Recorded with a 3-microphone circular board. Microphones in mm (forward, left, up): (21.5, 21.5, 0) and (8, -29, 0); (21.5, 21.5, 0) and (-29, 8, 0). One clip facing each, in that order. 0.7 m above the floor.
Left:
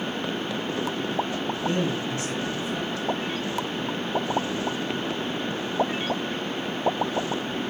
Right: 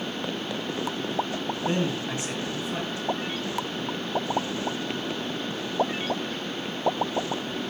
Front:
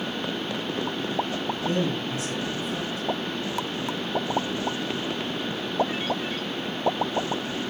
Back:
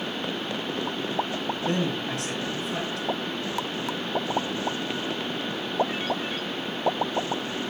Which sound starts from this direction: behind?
A man speaking, at 1.7 s.